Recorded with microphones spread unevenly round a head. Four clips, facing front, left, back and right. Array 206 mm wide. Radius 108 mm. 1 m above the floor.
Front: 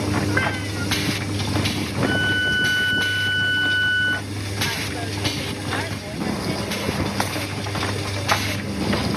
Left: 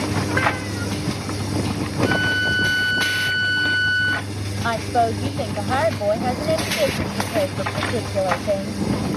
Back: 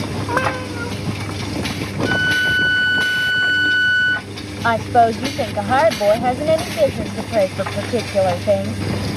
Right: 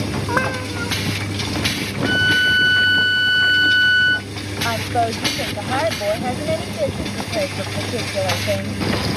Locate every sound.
0.3 s a cat meowing: 155° right
2.0 s a violin: 145° right
4.6 s a woman speaking: 175° left